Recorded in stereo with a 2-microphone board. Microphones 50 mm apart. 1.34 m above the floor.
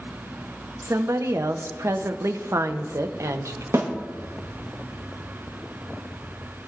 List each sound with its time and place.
0.8 s a woman speaking: 85° right, 0.7 m
3.7 s a snare drum: 80° right, 1.4 m